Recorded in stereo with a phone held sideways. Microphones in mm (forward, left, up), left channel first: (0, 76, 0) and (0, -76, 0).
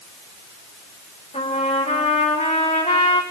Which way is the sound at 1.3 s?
45° left (ahead or behind).